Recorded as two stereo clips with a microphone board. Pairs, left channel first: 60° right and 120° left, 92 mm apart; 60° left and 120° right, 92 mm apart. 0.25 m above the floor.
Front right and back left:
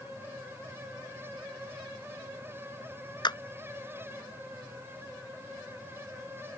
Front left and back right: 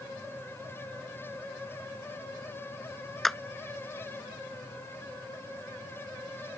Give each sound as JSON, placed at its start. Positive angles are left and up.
{"t": 3.2, "sound": "a clap", "azimuth_deg": -30}